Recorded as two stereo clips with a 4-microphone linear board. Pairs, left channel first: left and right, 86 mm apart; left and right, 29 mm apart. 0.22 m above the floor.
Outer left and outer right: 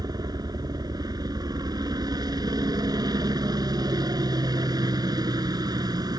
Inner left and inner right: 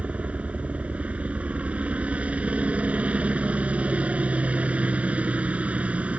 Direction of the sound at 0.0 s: 50° right (ahead or behind).